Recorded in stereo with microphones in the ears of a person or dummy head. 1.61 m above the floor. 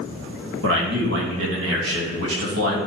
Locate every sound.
0.6 s a man speaking: 70° right (ahead or behind), 2.5 m